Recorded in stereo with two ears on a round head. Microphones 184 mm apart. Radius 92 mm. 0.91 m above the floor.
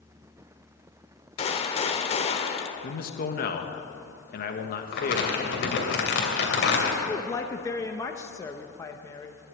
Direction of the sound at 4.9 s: 55° left (ahead or behind).